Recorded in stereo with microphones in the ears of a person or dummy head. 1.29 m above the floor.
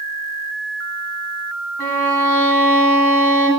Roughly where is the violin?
Centre.